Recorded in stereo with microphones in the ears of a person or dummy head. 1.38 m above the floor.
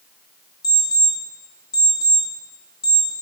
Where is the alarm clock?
20° left (ahead or behind), 1.3 m.